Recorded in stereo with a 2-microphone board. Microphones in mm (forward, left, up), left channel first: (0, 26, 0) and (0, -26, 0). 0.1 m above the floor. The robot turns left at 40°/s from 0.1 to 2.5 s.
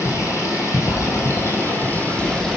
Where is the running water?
105° left, 3 m; by 2.6 s 10° left, 3 m.